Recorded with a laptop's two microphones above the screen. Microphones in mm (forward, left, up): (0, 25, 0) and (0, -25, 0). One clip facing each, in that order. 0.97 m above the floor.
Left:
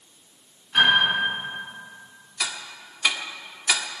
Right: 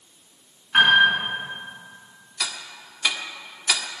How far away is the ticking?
About 1.2 m.